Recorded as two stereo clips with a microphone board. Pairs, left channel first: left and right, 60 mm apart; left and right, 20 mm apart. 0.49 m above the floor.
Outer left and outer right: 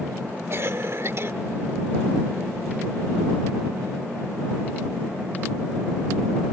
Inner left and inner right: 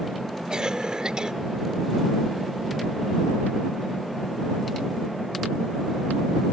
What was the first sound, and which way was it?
A cough, 45° right (ahead or behind).